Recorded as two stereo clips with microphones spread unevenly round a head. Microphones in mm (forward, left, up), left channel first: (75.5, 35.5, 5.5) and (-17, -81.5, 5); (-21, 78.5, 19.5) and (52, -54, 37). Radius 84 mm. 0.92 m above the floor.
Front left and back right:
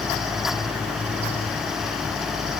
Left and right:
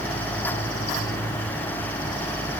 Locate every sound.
Only background noise.